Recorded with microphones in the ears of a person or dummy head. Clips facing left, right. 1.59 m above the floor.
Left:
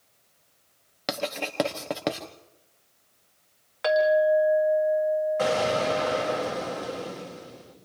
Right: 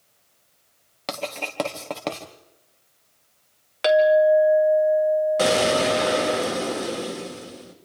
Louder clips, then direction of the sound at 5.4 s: Right 4 dB; 50° right (ahead or behind).